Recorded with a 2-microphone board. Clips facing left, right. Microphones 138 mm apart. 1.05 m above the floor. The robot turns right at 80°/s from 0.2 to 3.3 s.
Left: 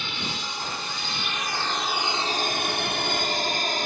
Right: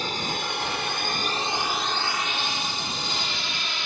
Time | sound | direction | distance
0.0 | a drone | 40° right (ahead or behind) | ?